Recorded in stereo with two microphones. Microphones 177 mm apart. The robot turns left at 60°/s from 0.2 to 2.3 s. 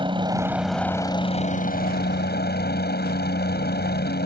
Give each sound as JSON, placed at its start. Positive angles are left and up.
{"t": 0.0, "sound": "a helicopter", "azimuth_deg": -150}